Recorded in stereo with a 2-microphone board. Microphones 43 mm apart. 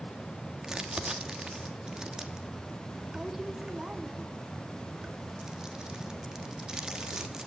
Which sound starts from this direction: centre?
Crumpling, at 0.6 s.